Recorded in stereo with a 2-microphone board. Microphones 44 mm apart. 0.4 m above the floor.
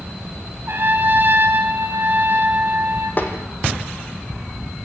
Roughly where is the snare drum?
Left.